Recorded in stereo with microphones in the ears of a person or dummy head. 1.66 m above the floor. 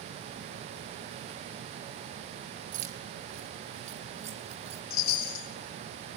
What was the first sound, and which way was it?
Keys jangling, 50° right (ahead or behind).